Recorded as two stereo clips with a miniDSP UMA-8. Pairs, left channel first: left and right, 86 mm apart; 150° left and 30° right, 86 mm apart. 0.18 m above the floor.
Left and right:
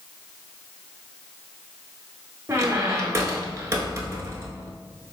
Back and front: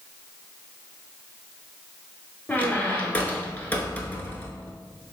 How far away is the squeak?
About 0.7 m.